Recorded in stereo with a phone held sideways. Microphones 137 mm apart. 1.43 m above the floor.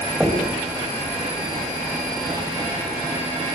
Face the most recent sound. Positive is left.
turn(degrees=0)  # may be behind; listen again after turning